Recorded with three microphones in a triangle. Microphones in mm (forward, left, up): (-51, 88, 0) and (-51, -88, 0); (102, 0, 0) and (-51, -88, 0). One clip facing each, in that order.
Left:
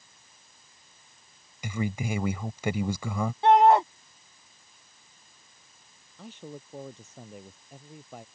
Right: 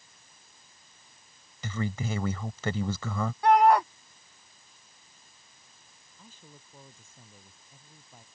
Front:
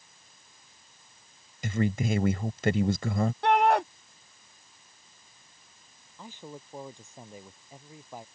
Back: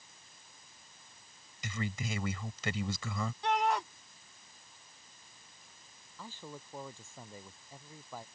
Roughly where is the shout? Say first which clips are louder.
Left 2 dB, front 8 dB; ahead left.